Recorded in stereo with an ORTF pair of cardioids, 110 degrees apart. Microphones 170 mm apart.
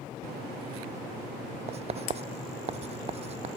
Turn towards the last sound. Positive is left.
turn(degrees=-40)